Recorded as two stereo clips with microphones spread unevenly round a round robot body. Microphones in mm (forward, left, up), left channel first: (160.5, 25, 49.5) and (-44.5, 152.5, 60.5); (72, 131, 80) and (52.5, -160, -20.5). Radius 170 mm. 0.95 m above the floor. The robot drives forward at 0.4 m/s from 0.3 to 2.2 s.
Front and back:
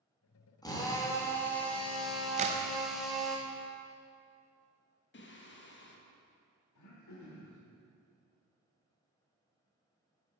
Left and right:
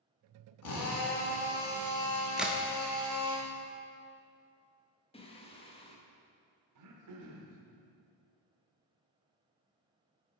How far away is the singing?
About 1.1 m.